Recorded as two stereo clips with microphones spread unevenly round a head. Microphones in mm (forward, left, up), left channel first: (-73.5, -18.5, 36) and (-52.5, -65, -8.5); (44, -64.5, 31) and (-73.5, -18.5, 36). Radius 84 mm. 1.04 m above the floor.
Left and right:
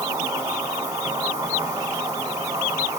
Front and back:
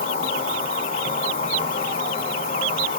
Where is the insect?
15° right, 2.5 m.